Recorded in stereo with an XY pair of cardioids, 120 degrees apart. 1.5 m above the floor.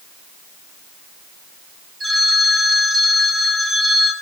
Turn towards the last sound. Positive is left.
turn(degrees=-25)